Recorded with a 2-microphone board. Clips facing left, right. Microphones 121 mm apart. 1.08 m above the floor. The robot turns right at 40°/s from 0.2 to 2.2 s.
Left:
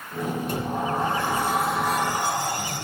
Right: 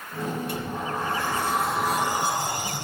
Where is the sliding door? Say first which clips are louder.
Left 4 dB; 135° left, 4 m; by 2.8 s 160° right, 4 m.